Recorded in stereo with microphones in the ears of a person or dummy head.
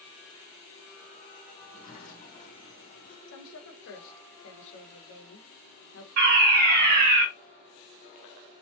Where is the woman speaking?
70° left (ahead or behind), 1.1 m.